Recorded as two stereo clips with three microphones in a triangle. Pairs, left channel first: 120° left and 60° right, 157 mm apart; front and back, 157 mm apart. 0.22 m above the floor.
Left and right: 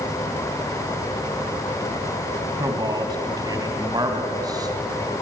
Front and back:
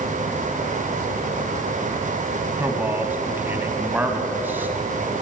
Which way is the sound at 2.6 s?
110° right.